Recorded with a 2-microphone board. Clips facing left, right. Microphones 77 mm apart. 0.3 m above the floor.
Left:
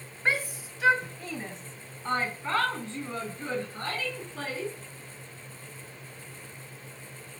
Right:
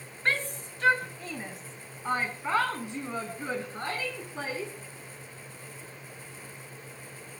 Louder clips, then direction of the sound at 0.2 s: Left 1 dB; 10° left (ahead or behind).